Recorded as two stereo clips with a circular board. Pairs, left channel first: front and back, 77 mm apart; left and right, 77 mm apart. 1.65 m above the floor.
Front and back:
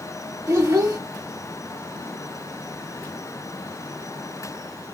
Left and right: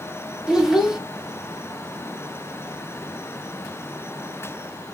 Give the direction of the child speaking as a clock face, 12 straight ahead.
6 o'clock.